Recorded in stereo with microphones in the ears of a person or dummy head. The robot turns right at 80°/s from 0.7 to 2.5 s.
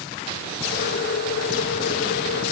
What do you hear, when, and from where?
Only background noise.